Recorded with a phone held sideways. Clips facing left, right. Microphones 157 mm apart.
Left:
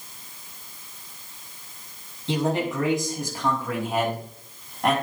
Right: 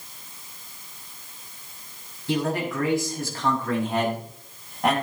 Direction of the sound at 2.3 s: 25° left (ahead or behind).